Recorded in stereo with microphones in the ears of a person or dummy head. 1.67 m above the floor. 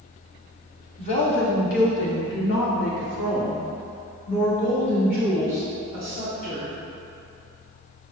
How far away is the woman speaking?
About 1.0 m.